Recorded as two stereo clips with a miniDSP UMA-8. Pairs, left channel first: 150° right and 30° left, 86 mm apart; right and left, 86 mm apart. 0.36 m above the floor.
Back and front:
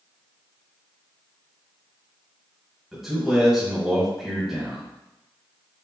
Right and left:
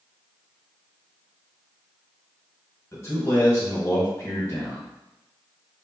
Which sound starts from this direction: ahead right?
A man speaking, at 2.9 s.